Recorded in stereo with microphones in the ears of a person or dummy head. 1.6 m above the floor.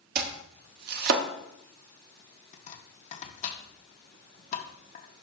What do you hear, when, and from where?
0.1 s chopping: 50° right (ahead or behind), 0.9 m
2.5 s chopping: 40° left (ahead or behind), 1.0 m